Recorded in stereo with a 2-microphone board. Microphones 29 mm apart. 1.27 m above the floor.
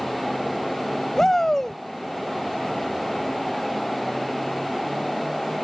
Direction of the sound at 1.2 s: 15° left (ahead or behind).